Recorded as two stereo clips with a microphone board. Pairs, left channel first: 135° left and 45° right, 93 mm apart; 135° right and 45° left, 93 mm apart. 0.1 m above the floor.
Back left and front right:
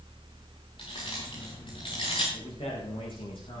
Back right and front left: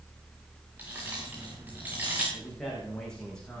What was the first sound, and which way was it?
Keys jangling, 115° left.